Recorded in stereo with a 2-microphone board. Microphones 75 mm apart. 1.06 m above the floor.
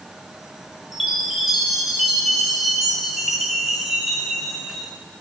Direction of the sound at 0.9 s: 5° right (ahead or behind).